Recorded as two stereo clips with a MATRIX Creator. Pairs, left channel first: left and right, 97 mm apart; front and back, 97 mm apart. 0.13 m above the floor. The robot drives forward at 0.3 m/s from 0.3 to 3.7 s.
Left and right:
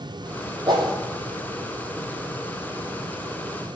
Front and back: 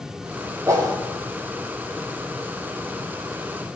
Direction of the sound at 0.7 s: 125° right.